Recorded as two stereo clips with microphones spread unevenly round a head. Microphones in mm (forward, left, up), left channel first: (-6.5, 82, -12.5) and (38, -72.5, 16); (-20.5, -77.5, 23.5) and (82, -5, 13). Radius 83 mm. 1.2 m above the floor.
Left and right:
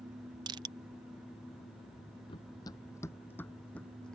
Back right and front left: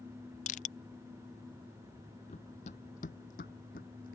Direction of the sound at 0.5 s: 145° right.